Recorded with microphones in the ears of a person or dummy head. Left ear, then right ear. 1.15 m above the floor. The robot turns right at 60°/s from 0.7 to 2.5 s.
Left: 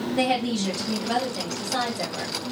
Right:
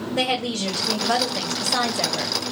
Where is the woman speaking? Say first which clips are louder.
Right 1 dB; 145° right, 0.8 m; by 2.4 s 45° right, 0.8 m.